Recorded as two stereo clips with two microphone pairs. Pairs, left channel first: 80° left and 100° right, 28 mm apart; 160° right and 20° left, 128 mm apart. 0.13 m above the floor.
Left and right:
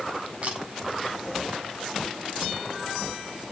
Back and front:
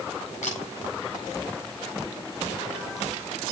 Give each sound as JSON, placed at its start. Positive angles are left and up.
{"t": 0.4, "sound": "a camera shutter", "azimuth_deg": -145, "distance_m": 7.0}